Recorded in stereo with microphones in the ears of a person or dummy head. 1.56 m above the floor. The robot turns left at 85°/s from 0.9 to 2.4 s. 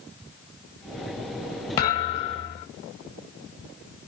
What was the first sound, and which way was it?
A thud, 15° left (ahead or behind).